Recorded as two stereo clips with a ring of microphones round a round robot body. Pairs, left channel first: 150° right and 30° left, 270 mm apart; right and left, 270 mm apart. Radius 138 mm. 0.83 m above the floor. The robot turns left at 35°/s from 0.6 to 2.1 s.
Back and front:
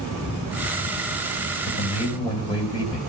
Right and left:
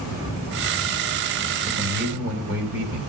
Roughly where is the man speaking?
Behind left.